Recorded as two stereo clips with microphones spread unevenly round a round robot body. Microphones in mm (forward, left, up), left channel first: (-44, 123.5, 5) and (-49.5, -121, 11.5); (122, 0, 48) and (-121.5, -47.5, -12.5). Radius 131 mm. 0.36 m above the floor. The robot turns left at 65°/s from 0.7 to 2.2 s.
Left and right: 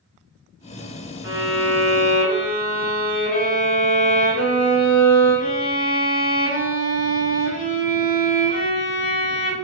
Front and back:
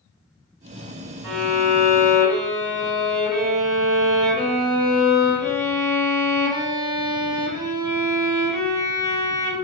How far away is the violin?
About 2 m.